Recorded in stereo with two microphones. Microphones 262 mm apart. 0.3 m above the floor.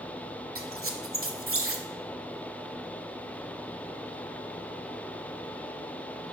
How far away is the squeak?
About 0.7 m.